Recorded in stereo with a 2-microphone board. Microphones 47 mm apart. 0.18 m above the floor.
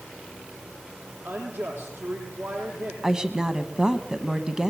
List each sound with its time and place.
1.2 s a woman speaking: 60° right (ahead or behind), 8 m
3.0 s a woman speaking: 15° right (ahead or behind), 1.1 m